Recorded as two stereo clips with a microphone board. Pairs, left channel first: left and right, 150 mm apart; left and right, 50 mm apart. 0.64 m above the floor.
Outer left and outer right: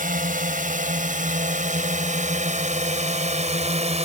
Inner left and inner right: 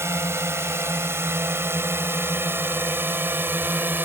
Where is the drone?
65° right (ahead or behind); by 4.0 s 45° right (ahead or behind).